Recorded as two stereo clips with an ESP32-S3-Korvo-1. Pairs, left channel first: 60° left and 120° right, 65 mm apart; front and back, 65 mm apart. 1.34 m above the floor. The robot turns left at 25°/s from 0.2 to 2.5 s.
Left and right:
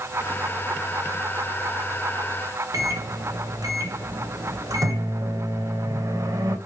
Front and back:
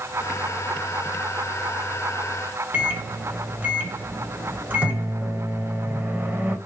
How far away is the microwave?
About 0.8 m.